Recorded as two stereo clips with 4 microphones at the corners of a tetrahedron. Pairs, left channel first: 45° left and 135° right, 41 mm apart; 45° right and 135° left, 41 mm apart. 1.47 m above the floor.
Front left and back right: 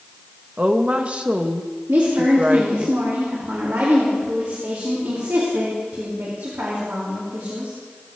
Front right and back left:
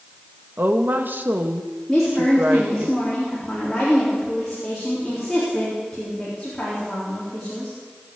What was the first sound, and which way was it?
A woman speaking, 165° left.